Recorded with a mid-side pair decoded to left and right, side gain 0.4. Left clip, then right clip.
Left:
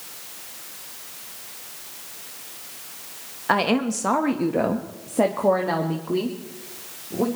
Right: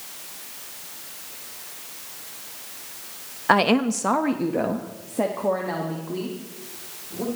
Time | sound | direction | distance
3.5 | a woman speaking | 25° right | 1.2 m